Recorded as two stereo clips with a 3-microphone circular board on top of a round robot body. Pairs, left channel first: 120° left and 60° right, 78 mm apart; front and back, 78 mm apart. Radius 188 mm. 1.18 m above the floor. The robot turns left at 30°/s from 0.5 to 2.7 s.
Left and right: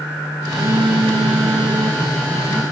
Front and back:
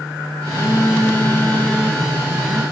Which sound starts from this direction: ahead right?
A phone buzzing, at 0.5 s.